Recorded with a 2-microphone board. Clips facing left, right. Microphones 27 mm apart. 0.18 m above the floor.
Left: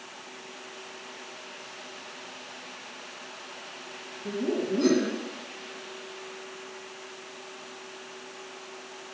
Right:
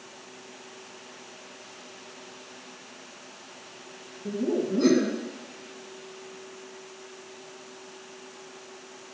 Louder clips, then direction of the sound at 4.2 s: Right 1 dB; 10° right (ahead or behind).